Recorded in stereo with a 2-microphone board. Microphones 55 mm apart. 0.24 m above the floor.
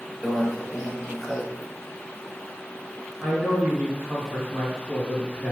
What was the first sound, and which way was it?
A microwave, centre (ahead or behind).